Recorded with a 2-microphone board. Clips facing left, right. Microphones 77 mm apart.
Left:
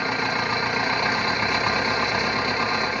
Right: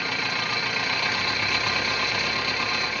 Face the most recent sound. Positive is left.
turn(degrees=25)  # may be behind; listen again after turning